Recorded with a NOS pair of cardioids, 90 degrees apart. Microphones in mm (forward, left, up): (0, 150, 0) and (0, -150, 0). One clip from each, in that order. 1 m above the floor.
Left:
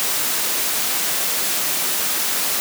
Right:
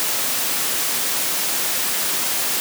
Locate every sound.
Only background noise.